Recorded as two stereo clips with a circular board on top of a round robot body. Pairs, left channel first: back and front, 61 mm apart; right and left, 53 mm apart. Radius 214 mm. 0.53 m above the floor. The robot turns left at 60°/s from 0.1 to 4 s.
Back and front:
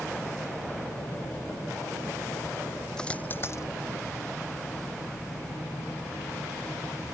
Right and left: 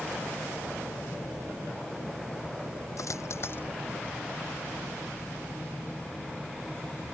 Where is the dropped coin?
100° right; by 3.6 s 140° right.